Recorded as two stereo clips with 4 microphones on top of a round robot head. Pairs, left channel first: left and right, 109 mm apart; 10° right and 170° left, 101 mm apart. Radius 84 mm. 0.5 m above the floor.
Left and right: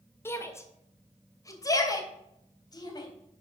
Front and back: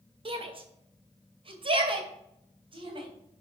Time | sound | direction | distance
0.2 | a shout | 155° left | 2 m